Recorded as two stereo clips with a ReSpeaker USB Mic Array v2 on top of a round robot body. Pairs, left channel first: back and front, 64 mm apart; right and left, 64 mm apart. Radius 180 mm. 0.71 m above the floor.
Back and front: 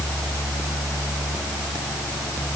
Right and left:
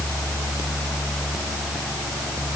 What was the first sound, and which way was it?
Only background noise.